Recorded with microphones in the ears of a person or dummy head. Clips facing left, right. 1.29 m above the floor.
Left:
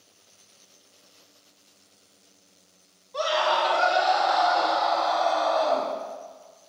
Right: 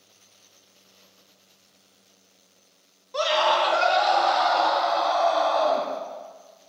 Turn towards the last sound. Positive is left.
turn(degrees=-75)  # may be behind; listen again after turning